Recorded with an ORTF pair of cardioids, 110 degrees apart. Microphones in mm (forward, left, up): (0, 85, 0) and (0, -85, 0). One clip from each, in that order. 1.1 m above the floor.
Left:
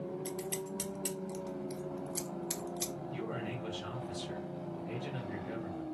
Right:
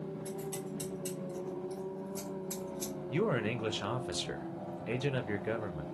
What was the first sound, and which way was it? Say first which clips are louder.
Scissors: left 1 dB; 60° left.